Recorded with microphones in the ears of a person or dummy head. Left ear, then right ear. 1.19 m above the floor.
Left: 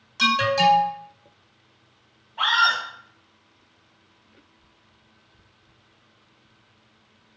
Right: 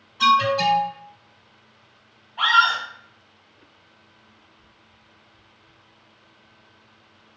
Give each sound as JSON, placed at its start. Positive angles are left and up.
{"t": 0.2, "sound": "an alarm", "side_deg": 60, "distance_m": 1.2}
{"t": 2.4, "sound": "a scream", "side_deg": -15, "distance_m": 0.9}